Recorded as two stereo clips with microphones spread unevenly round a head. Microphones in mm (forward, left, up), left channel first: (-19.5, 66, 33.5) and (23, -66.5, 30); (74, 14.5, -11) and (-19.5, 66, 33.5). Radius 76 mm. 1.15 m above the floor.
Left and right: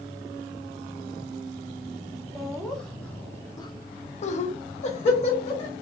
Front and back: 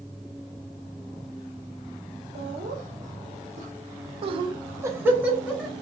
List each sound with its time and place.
2.4 s laughter: 160° right, 1.0 m; by 5.7 s 55° left, 1.0 m